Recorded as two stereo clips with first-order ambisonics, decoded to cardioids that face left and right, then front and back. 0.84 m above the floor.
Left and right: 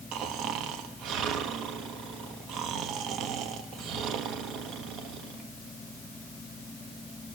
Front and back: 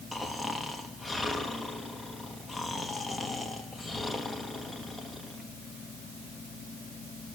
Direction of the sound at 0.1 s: 80° right.